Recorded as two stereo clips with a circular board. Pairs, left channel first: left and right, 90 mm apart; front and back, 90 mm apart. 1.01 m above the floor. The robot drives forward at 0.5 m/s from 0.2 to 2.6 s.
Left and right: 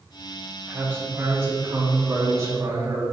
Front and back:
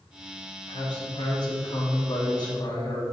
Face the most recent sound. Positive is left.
turn(degrees=-35)